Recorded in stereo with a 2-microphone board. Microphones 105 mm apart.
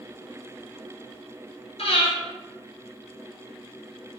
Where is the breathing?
70° left (ahead or behind), 1.4 m.